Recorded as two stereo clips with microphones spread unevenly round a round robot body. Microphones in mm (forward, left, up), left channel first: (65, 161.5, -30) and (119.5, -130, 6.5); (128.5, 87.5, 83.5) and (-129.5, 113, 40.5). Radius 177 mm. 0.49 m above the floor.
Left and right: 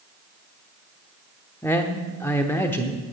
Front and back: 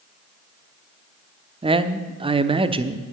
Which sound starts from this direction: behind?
A man speaking, at 1.6 s.